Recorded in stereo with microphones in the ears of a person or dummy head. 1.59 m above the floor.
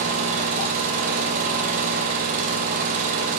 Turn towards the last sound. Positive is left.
turn(degrees=-45)  # may be behind; listen again after turning